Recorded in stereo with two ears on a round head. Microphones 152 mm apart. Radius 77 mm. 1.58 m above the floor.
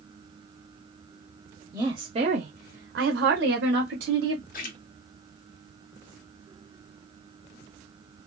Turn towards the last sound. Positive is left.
turn(degrees=55)  # may be behind; listen again after turning